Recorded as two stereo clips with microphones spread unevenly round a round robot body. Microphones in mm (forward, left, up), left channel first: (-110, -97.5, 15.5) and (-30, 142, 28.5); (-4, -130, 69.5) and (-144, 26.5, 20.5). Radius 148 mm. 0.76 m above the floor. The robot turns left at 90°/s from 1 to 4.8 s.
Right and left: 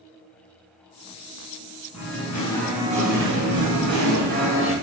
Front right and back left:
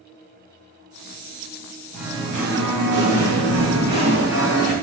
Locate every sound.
1.9 s singing: 130° right, 3 m; by 4.7 s 25° right, 3 m